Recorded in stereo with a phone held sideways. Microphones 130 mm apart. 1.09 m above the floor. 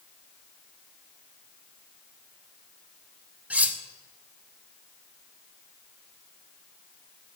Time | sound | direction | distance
3.5 | cutlery clinking | 10° right (ahead or behind) | 0.9 m